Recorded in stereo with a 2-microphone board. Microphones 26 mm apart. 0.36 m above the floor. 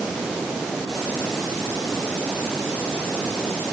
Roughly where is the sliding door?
I don't hear a sliding door.